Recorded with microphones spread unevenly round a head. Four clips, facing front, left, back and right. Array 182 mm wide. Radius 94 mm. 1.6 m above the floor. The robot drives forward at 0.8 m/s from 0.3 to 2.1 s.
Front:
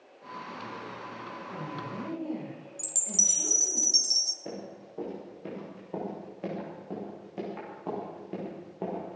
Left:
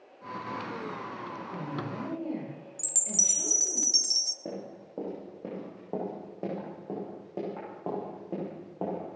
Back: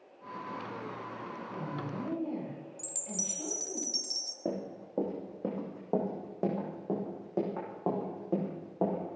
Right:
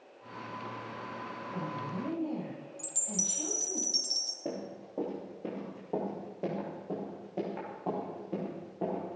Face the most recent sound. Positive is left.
turn(degrees=155)